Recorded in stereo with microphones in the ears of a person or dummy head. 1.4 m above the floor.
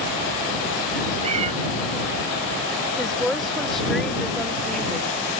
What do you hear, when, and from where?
1.2 s a cat meowing: 40° right (ahead or behind)
3.0 s a woman speaking: centre (ahead or behind)